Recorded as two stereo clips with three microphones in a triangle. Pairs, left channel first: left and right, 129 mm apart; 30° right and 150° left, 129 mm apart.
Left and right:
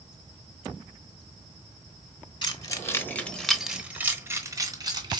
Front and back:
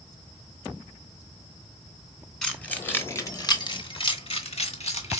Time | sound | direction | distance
2.4 | keys jangling | 50° left | 1.1 m